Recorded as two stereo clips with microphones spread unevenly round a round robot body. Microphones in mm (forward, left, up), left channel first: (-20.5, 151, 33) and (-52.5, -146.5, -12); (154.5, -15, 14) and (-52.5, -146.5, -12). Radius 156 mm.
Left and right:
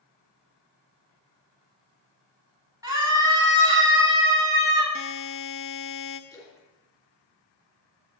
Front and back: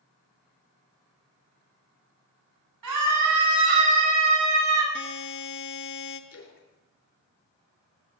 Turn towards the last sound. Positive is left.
turn(degrees=5)